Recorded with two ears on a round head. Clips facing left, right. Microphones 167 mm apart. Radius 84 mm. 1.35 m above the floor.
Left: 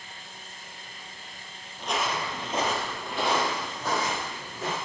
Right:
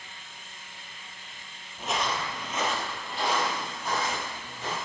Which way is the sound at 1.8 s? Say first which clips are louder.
Left 1 dB; 5° right (ahead or behind).